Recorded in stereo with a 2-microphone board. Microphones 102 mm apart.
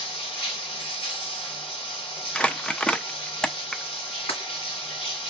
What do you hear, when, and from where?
0.0 s running water: 70° left (ahead or behind), 1.6 m
2.4 s crumpling: 10° left (ahead or behind), 0.5 m
4.3 s breaking glass: 85° left, 1.8 m